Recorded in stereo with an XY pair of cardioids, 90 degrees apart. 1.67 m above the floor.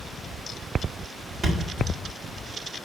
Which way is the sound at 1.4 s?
35° right.